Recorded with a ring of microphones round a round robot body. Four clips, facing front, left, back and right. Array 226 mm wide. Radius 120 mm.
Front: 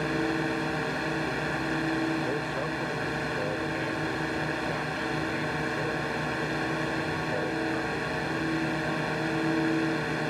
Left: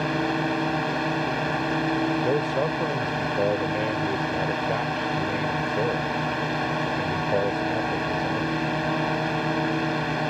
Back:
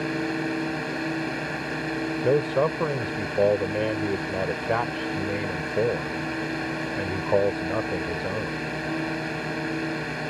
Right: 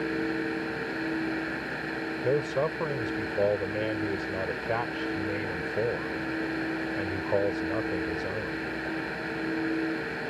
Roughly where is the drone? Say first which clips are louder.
Left 5 dB, back 1 dB; left.